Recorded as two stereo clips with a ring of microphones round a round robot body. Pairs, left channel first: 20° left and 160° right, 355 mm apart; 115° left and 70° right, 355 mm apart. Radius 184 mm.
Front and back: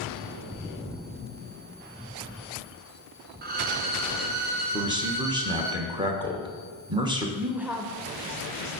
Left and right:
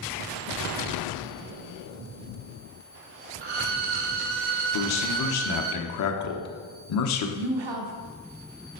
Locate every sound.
3.4 s a violin: 90° right, 0.7 m
4.7 s a man speaking: 130° left, 1.1 m
7.4 s a woman speaking: 70° right, 1.0 m